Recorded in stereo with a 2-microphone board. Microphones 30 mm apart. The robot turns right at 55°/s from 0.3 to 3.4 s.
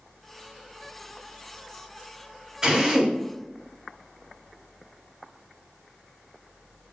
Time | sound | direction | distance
2.6 | a drill | 25° right (ahead or behind) | 1.4 m